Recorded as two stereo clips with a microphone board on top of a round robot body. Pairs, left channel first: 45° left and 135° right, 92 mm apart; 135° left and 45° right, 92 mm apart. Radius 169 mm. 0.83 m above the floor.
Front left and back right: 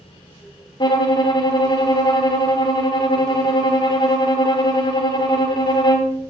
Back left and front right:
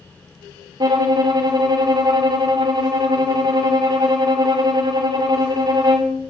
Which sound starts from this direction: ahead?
A violin, at 0.8 s.